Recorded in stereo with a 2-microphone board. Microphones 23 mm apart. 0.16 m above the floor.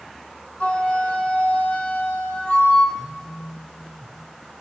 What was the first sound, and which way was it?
A flute, 55° left (ahead or behind).